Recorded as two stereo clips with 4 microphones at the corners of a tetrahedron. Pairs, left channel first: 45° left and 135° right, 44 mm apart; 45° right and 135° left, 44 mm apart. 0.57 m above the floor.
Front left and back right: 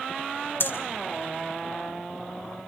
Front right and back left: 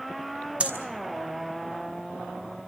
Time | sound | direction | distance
0.6 | breathing | 75° left | 5 m